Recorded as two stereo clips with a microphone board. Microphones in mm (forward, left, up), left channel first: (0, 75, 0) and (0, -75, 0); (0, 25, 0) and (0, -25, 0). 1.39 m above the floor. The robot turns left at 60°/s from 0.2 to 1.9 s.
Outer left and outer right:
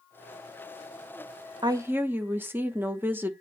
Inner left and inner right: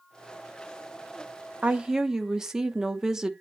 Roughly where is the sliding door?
I don't hear a sliding door.